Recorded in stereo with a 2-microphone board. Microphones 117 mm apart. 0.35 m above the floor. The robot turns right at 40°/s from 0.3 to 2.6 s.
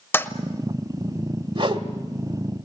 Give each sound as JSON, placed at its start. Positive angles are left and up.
{"t": 0.1, "sound": "a toilet flushing", "side_deg": 20, "distance_m": 1.0}
{"t": 1.6, "sound": "a whoosh", "side_deg": -40, "distance_m": 1.3}